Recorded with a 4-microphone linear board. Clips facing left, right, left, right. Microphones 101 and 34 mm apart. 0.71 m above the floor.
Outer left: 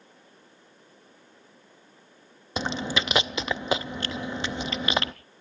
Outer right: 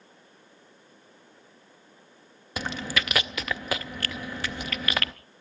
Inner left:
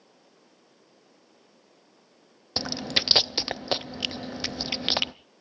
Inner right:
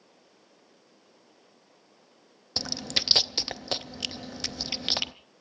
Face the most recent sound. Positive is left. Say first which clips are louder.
# outer left 2 dB, inner left 3 dB
turn(degrees=20)  # may be behind; listen again after turning